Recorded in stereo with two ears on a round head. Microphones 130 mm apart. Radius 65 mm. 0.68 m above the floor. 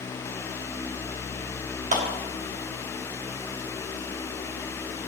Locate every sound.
1.9 s a clap: 50° right (ahead or behind), 1.2 m